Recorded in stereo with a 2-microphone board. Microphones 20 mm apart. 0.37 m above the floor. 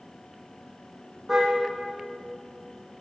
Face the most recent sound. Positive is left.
turn(degrees=-20)  # may be behind; listen again after turning